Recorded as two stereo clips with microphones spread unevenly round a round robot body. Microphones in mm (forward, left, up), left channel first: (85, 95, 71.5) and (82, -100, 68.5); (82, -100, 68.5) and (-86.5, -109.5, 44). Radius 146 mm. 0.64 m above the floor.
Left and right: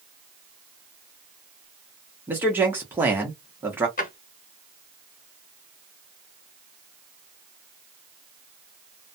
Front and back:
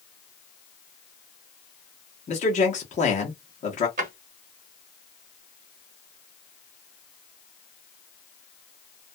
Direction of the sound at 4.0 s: 140° left.